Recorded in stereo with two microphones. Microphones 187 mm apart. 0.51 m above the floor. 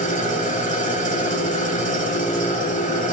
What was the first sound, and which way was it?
An engine running, 40° left (ahead or behind).